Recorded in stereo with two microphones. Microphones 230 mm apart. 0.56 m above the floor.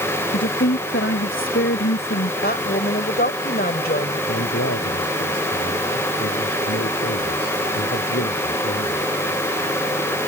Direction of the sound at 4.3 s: 80° left.